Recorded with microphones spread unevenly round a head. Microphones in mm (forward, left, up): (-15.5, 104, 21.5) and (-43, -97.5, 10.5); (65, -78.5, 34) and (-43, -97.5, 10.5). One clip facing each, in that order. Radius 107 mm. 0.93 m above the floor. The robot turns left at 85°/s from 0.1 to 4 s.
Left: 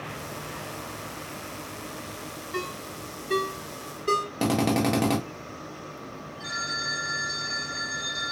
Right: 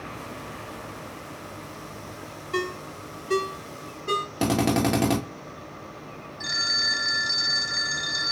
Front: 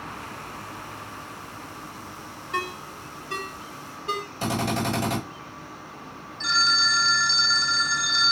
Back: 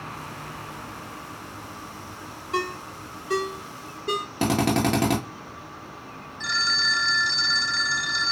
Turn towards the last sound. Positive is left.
turn(degrees=-60)